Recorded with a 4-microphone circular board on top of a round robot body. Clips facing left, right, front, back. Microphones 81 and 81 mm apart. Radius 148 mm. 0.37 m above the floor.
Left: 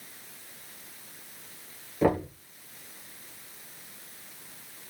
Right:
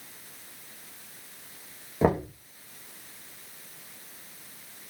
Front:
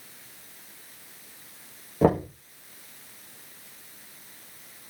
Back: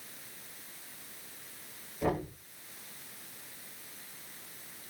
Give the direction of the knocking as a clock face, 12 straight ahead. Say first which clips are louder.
Even, front 10 dB; 1 o'clock.